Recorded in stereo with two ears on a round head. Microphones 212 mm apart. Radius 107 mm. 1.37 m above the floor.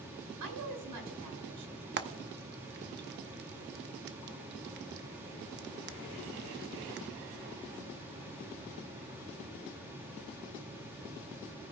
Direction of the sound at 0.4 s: 90° right.